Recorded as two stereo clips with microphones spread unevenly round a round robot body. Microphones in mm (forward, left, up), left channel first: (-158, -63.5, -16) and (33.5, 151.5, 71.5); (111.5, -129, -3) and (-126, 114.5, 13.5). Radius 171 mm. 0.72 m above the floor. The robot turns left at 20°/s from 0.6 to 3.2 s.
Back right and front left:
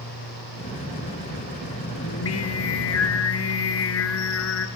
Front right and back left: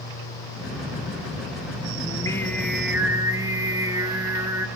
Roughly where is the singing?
Behind right.